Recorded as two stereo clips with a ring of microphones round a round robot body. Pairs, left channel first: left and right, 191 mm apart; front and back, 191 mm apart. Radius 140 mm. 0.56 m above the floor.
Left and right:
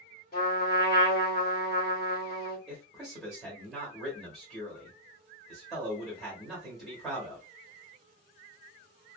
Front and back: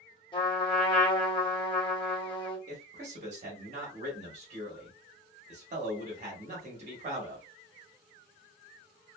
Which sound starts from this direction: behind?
A man speaking, at 2.7 s.